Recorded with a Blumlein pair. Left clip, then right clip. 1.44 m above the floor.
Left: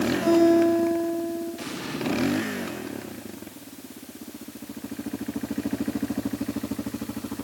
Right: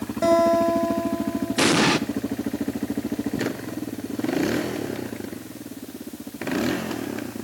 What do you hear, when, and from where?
0.2 s a guitar: 25° right, 9 m
1.6 s an explosion: 40° right, 1.3 m